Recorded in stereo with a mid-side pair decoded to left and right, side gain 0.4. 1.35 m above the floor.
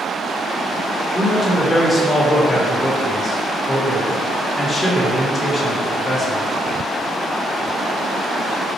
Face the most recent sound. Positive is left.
turn(degrees=20)